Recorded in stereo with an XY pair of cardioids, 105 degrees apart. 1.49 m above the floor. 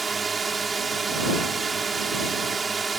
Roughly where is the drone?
Ahead right.